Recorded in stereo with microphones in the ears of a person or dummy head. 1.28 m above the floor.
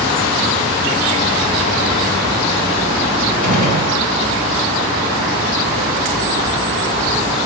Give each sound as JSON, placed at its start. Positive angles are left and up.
{"t": 3.4, "sound": "a gunshot", "side_deg": -50, "distance_m": 3.5}